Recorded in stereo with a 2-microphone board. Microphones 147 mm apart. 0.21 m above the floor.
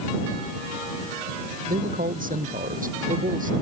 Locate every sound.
1.7 s a man speaking: 80° right; by 3.5 s 75° right (ahead or behind)